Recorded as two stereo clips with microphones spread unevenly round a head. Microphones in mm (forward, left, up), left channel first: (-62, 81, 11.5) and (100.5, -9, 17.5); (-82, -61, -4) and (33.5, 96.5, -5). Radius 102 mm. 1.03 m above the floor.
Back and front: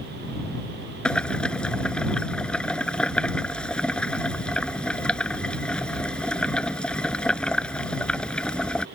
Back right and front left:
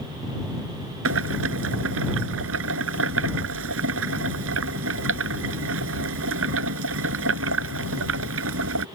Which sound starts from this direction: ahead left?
Boiling, at 1.1 s.